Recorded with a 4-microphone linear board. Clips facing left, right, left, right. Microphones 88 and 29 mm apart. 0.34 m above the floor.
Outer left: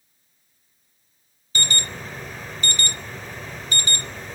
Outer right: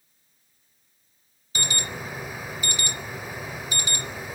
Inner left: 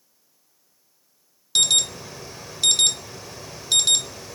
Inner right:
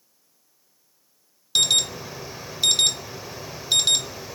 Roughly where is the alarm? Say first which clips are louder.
Outer left 2 dB, even; centre.